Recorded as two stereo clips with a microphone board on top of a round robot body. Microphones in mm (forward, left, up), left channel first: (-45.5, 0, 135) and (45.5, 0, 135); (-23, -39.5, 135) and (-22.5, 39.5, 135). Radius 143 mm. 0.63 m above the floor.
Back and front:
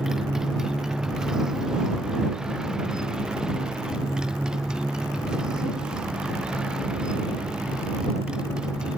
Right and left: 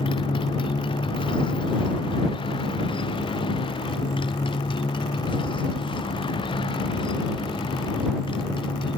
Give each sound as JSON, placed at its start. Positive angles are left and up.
{"t": 0.0, "sound": "a motorcycle", "azimuth_deg": -85}